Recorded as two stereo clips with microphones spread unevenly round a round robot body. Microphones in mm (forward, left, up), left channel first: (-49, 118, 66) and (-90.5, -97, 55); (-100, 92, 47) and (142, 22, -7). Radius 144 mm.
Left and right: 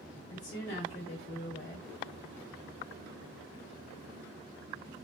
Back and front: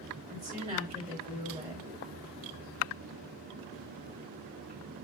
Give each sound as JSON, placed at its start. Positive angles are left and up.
{"t": 0.3, "sound": "a woman speaking", "azimuth_deg": 50, "distance_m": 2.5}